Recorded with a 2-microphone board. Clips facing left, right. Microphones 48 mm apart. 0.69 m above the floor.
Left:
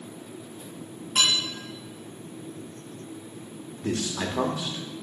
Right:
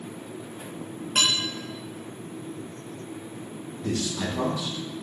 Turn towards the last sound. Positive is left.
turn(degrees=40)  # may be behind; listen again after turning